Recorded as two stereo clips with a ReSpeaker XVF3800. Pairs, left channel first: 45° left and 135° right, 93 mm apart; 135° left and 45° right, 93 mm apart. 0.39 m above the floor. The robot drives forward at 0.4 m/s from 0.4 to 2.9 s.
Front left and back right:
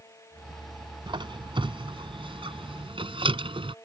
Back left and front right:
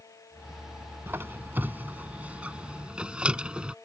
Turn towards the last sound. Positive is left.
turn(degrees=-125)